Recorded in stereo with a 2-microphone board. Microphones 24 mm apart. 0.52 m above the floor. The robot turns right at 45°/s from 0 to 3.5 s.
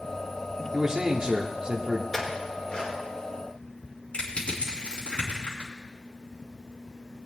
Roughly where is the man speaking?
Behind right.